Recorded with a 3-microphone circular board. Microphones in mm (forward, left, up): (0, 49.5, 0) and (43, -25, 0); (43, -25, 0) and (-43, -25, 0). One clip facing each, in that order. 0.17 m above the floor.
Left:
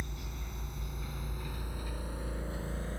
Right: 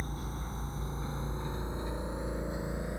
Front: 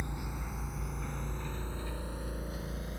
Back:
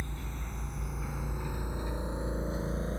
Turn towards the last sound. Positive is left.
turn(degrees=-130)